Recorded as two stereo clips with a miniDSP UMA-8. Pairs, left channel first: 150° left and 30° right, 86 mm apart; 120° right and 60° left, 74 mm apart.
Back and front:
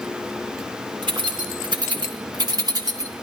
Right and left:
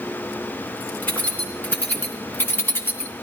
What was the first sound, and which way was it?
Keys jangling, 55° right.